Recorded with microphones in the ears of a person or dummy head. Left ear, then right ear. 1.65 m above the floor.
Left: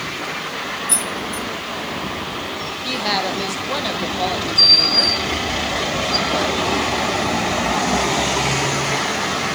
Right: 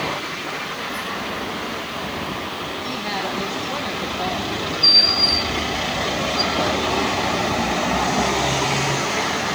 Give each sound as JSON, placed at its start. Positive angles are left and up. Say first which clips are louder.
{"t": 0.9, "sound": "keys jangling", "louder": "left 2 dB", "side_deg": 55, "distance_m": 0.9}
{"t": 2.8, "sound": "a woman speaking", "louder": "left 7 dB", "side_deg": 30, "distance_m": 1.6}